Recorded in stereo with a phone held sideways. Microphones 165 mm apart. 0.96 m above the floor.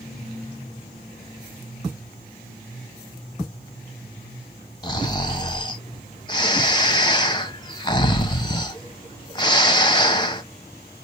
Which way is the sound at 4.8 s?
25° left (ahead or behind).